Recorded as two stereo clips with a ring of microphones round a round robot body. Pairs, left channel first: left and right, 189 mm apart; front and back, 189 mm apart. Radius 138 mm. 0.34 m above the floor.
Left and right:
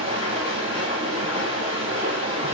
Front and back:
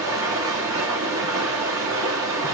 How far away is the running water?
About 5 m.